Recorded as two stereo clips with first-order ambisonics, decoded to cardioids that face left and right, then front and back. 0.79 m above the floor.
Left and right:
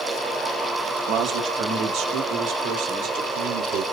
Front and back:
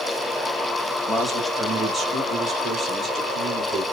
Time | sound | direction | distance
1.1 | a man speaking | 85° right | 1.0 m